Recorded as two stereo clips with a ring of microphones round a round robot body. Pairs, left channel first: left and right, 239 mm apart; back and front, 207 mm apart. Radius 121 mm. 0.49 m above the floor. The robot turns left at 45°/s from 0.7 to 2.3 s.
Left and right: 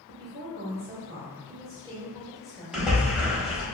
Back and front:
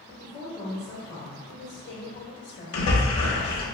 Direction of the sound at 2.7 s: 175° right.